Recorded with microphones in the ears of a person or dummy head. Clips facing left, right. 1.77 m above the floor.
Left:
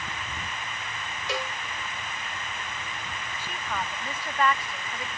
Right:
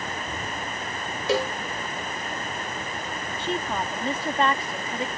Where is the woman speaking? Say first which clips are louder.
Right 7 dB; 20° right (ahead or behind).